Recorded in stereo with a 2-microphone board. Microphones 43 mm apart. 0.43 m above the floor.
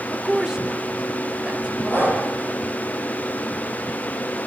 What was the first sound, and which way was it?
A woman speaking, 5° right (ahead or behind).